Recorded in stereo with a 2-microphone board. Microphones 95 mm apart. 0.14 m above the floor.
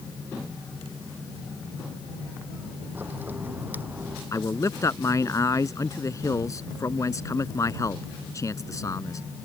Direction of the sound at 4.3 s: 35° left (ahead or behind).